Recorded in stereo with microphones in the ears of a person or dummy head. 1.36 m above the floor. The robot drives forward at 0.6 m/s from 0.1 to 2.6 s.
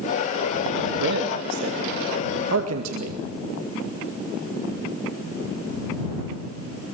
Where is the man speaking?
55° right (ahead or behind), 2.5 m; by 3.2 s 75° right (ahead or behind), 2.0 m.